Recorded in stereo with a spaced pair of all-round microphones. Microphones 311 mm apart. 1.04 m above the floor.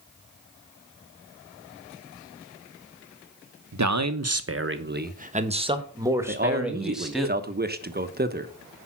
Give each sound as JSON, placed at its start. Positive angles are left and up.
{"t": 3.7, "sound": "a man speaking", "side_deg": -65, "distance_m": 1.0}
{"t": 6.3, "sound": "a man speaking", "side_deg": -30, "distance_m": 1.0}